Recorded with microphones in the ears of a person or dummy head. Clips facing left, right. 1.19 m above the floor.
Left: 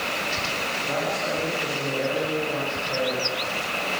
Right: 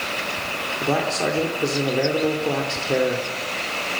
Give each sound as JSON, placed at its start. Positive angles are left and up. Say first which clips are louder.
{"t": 0.8, "sound": "a man speaking", "louder": "right 6 dB", "side_deg": -75, "distance_m": 3.5}